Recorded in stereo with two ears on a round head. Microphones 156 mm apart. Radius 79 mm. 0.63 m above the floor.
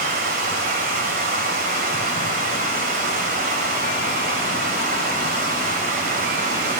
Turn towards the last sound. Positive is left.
turn(degrees=-50)  # may be behind; listen again after turning